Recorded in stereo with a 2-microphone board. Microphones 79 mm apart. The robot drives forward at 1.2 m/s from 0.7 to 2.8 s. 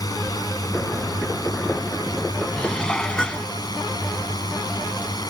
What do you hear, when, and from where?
0.0 s a drone: 50° left (ahead or behind); by 5.3 s 55° left (ahead or behind)
2.6 s dishes clattering: 15° left (ahead or behind); by 3.5 s 10° left (ahead or behind)